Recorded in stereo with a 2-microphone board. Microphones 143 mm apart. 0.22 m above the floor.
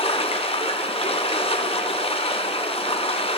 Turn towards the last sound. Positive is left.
turn(degrees=40)  # may be behind; listen again after turning